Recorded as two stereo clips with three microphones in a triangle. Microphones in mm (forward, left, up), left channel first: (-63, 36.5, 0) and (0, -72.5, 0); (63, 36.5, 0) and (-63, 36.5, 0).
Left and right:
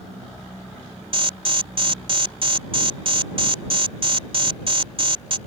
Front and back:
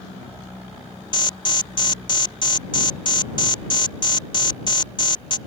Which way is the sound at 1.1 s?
35° right.